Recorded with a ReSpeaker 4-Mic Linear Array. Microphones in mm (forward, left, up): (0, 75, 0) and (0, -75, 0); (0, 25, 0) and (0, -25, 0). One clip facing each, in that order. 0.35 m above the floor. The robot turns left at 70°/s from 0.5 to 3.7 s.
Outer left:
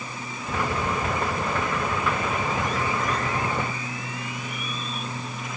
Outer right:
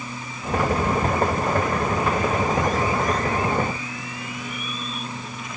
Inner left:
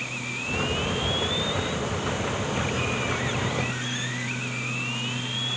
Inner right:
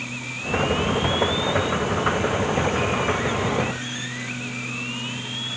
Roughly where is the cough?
I don't hear a cough.